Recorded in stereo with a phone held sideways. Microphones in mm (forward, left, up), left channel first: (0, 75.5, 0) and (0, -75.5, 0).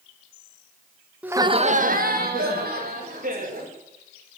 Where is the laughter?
10° right (ahead or behind), 0.9 m; by 3.7 s 75° right (ahead or behind), 3.5 m.